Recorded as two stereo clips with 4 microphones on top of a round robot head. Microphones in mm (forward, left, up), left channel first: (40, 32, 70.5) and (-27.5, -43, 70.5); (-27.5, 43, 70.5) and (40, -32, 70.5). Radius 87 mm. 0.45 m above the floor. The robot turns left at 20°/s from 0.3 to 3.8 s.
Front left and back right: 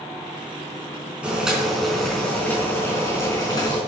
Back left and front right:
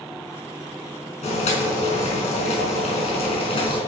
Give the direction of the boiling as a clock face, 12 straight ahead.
7 o'clock.